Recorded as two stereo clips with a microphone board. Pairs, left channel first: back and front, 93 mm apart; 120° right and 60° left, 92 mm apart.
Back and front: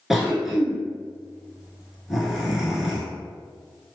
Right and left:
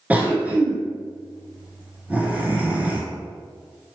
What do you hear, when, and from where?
0.1 s a cough: 80° left, 1.1 m